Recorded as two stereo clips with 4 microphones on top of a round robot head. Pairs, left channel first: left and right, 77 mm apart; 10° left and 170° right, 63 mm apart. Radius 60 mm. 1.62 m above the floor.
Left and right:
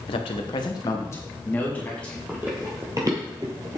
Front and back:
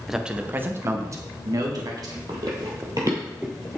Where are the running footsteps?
165° right, 2.5 m; by 3.8 s 65° right, 1.8 m.